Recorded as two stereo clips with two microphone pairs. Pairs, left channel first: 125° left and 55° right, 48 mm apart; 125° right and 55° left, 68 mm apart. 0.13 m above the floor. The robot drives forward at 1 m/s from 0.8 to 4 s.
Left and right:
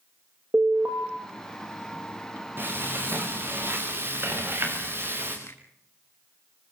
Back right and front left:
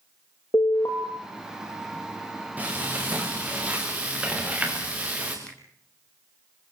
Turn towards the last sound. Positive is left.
turn(degrees=160)